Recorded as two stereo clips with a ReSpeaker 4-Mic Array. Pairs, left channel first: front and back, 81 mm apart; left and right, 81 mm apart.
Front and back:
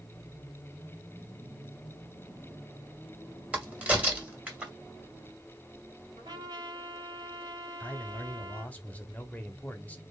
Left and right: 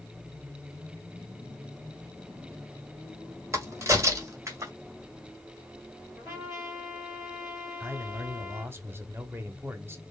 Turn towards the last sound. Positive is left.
turn(degrees=-55)